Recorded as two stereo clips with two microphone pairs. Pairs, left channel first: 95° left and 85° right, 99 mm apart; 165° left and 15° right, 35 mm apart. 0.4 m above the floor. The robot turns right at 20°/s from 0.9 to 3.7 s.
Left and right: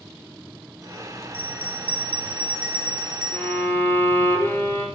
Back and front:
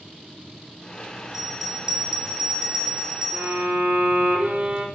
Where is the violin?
20° left, 1.3 m; by 4.8 s 30° left, 1.3 m.